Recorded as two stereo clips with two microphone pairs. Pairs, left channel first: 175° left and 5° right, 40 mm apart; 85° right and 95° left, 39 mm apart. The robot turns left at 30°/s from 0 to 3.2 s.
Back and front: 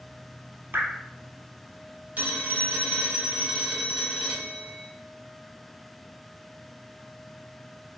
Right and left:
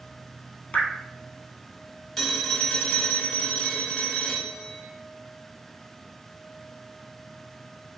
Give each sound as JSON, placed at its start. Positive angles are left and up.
{"t": 0.7, "sound": "dripping", "azimuth_deg": -30, "distance_m": 0.9}
{"t": 2.2, "sound": "a phone ringing", "azimuth_deg": -5, "distance_m": 0.7}